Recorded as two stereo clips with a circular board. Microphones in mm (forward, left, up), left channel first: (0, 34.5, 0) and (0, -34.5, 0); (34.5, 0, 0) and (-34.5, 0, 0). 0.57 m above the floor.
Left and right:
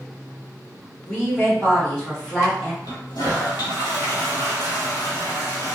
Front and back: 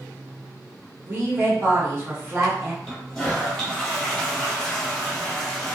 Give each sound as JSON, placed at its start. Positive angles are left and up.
{"t": 1.1, "sound": "a woman speaking", "azimuth_deg": 160, "distance_m": 1.3}
{"t": 2.8, "sound": "a toilet flushing", "azimuth_deg": 85, "distance_m": 0.8}